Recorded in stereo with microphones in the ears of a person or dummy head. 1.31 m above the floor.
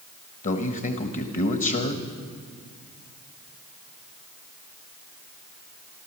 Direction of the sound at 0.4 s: 40° left (ahead or behind).